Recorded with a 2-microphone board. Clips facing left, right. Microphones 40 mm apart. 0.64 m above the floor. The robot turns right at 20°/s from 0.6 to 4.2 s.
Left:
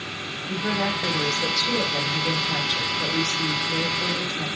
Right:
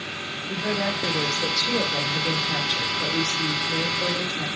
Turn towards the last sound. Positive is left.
turn(degrees=-135)